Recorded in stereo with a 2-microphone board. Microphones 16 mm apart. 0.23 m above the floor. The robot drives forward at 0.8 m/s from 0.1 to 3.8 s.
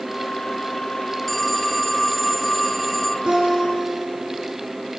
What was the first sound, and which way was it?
A phone ringing, centre (ahead or behind).